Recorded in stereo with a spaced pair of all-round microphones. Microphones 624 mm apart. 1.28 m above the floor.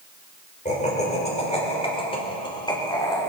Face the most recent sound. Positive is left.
turn(degrees=5)  # may be behind; listen again after turning